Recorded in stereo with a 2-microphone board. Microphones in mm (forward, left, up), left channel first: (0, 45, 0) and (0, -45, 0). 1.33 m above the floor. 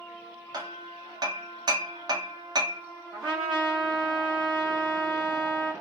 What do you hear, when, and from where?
0.5 s hammering: 45° right (ahead or behind), 0.6 m
3.1 s a trumpet: 55° right (ahead or behind), 2 m